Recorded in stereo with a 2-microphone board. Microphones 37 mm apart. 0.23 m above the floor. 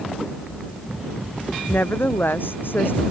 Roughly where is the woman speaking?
Left.